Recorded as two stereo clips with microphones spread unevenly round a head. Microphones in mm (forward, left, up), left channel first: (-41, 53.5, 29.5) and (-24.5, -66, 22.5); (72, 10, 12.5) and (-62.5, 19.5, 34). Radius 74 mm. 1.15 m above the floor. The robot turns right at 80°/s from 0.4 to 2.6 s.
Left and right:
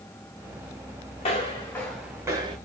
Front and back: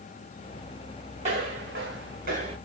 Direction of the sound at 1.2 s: 135° left.